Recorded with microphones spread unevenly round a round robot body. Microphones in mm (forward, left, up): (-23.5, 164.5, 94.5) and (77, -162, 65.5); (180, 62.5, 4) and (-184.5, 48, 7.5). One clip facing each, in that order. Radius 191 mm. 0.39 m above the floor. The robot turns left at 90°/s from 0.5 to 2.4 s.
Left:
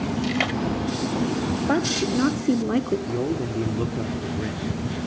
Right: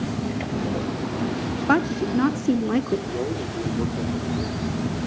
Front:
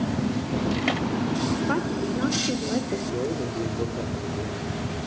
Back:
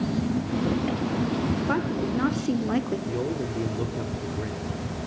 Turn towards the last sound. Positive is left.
turn(degrees=110)